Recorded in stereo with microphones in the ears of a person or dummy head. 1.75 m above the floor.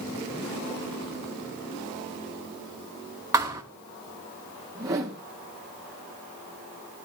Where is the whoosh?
20° right (ahead or behind), 2 m.